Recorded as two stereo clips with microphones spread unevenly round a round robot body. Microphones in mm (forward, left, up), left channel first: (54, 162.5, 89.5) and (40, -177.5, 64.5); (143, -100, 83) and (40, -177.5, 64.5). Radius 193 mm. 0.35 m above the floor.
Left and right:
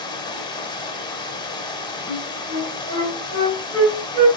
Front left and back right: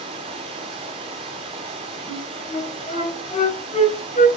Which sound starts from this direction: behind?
Running water, at 0.0 s.